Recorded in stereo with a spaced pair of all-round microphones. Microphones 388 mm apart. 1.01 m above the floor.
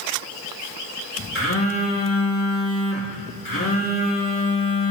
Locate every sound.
1.4 s a phone buzzing: 35° left (ahead or behind), 2 m